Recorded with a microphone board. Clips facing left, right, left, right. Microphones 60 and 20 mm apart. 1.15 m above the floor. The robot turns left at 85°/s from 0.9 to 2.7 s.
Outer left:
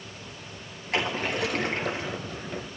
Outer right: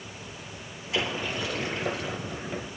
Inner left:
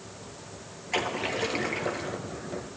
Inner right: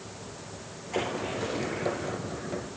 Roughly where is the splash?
Behind left.